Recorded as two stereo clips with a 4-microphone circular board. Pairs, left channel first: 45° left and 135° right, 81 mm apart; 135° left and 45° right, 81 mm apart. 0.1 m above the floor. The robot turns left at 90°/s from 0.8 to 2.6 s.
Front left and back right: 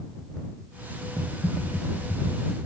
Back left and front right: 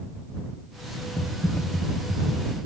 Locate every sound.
1.2 s typing on a keyboard: 110° left; by 2.6 s 15° right